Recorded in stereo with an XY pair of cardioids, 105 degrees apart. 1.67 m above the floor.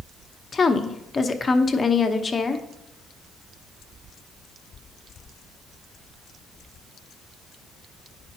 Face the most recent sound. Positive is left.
turn(degrees=35)